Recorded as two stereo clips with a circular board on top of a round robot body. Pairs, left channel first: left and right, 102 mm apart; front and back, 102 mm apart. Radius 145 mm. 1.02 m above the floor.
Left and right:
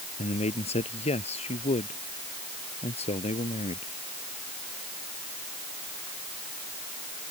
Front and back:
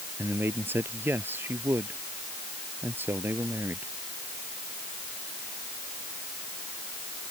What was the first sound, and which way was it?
A man speaking, 110° left.